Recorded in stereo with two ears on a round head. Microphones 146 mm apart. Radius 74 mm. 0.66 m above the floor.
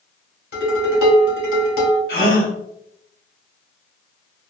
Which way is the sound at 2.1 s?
55° left (ahead or behind).